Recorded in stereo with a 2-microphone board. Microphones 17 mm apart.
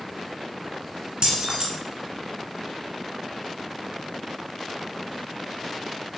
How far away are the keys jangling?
About 1.8 m.